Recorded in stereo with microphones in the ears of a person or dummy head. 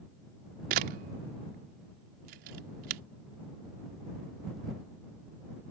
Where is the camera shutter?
40° right (ahead or behind).